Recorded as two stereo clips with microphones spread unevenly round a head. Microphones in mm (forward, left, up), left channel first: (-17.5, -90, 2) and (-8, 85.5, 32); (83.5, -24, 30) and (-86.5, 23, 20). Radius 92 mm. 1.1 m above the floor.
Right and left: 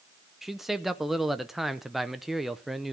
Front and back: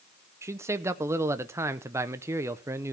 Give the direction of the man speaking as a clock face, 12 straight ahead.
5 o'clock.